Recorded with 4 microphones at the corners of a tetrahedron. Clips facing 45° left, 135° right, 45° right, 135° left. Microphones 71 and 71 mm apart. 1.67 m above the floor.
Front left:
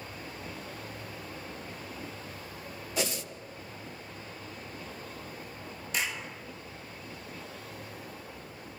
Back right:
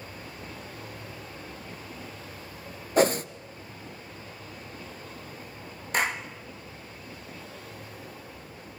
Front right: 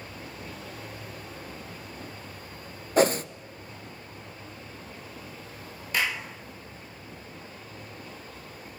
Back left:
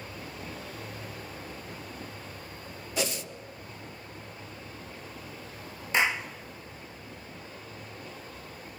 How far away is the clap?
About 1.5 m.